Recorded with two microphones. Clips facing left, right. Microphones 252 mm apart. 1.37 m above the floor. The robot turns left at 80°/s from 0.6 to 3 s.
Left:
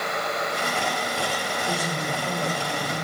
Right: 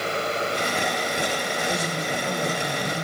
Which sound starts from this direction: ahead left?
A woman speaking, at 1.7 s.